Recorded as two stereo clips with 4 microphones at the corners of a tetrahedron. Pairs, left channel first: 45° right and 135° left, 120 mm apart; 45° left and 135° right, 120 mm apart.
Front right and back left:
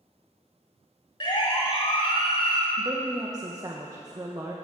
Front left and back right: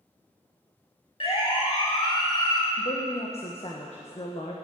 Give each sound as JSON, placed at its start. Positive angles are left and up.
{"t": 1.2, "sound": "a siren", "azimuth_deg": 5, "distance_m": 3.5}
{"t": 2.8, "sound": "a woman speaking", "azimuth_deg": 75, "distance_m": 1.6}